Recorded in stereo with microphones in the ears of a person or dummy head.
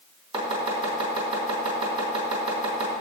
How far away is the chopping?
About 3.5 m.